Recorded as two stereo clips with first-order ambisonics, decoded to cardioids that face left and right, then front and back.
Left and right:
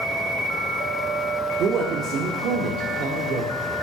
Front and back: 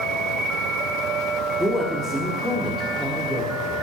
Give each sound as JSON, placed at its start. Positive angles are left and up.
{"t": 1.6, "sound": "a man speaking", "azimuth_deg": -85, "distance_m": 1.4}